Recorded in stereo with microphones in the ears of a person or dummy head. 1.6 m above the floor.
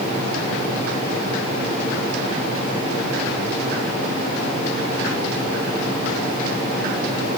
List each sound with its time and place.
Only background noise.